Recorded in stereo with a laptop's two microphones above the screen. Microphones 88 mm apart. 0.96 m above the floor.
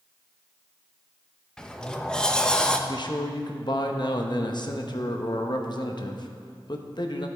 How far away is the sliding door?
About 0.8 m.